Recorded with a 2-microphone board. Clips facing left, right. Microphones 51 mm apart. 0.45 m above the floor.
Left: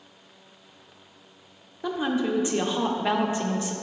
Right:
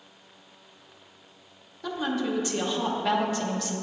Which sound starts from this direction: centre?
A woman speaking, at 1.8 s.